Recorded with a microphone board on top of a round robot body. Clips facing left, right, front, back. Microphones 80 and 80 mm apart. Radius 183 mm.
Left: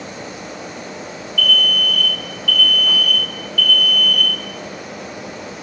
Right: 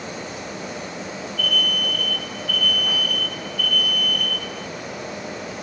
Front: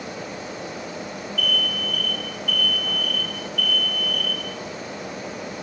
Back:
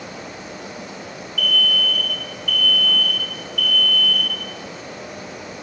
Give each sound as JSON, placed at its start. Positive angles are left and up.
{"t": 1.4, "sound": "an alarm", "azimuth_deg": -155, "distance_m": 3.5}